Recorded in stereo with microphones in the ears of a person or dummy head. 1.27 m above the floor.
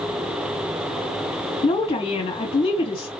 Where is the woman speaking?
20° left (ahead or behind), 2.5 m.